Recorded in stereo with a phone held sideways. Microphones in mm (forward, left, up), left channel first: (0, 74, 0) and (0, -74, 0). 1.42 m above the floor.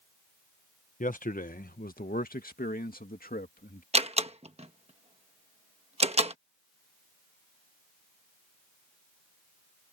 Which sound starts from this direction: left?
A man speaking, at 1.0 s.